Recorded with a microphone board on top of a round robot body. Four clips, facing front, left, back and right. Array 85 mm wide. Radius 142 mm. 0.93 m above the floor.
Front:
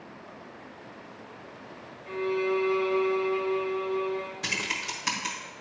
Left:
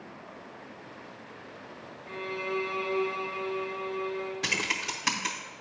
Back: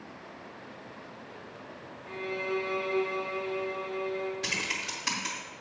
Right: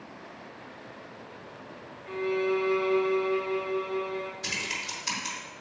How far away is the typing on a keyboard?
About 0.7 m.